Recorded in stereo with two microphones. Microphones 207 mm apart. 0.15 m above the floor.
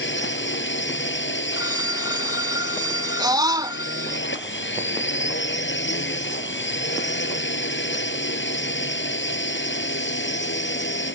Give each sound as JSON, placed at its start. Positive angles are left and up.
{"t": 0.0, "sound": "a drone", "side_deg": 65}
{"t": 1.5, "sound": "a phone ringing", "side_deg": -20}
{"t": 3.2, "sound": "a scream", "side_deg": -20}